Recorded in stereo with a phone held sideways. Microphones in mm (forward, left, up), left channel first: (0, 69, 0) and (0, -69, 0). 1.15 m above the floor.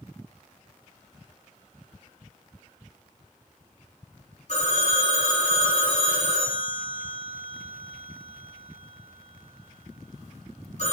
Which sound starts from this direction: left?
A phone ringing, at 4.5 s.